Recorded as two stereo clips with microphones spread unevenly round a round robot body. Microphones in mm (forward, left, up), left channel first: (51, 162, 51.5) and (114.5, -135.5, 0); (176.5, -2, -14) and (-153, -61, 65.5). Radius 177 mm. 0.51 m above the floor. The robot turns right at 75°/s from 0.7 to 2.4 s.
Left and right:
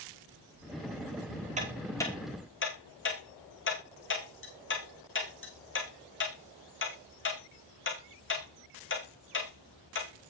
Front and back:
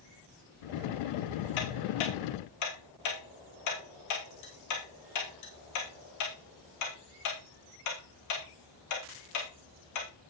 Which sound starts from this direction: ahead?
Ticking, at 1.6 s.